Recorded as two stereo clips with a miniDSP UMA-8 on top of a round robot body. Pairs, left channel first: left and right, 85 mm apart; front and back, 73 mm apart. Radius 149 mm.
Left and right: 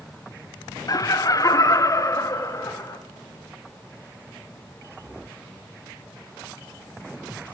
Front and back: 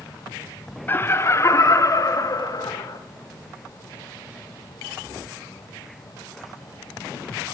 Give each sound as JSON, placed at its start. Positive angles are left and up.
{"t": 0.9, "sound": "laughter", "azimuth_deg": 55, "distance_m": 1.2}